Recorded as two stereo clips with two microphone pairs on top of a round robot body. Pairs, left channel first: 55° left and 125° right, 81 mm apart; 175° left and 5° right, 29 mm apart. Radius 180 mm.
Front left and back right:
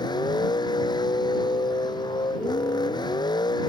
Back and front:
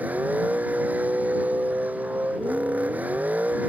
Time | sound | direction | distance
0.0 | a vehicle | 20° left | ?